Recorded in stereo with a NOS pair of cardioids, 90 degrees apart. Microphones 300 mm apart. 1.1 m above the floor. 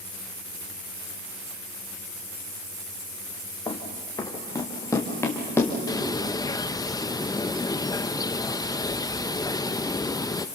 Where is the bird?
15° left, 0.6 m.